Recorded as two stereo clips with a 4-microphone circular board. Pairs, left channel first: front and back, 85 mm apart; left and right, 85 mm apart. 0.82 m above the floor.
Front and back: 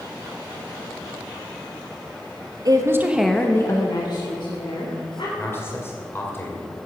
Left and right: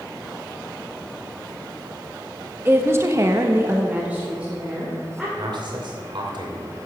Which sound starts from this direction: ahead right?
A man speaking, at 5.4 s.